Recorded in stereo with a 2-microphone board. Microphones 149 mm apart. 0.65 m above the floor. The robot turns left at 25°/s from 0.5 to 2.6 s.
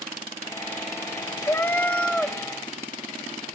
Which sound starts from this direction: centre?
A cat meowing, at 1.4 s.